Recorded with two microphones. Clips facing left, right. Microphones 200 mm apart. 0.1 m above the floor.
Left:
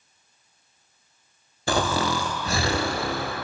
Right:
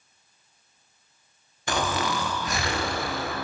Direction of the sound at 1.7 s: 35° left (ahead or behind).